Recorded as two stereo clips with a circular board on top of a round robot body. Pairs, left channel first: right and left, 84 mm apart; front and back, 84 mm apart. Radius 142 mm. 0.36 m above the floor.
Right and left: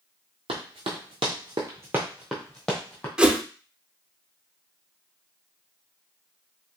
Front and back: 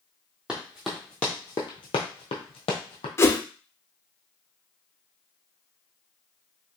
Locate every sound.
0.5 s running footsteps: 100° left, 0.8 m; by 3.1 s 20° right, 0.9 m
3.2 s a whoosh: 20° left, 0.8 m